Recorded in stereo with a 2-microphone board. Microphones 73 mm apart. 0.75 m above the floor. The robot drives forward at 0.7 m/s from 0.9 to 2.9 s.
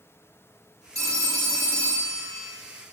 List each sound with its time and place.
0.9 s a phone ringing: 50° right (ahead or behind), 1.9 m; by 2.5 s 30° right (ahead or behind), 2.5 m